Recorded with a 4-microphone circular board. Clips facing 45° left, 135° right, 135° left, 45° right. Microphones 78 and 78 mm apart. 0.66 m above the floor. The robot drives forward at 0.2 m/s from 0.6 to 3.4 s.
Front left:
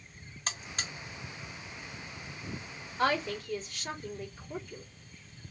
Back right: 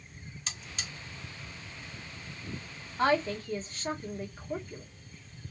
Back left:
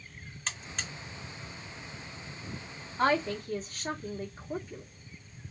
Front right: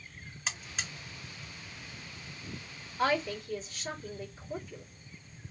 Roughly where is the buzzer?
Ahead left.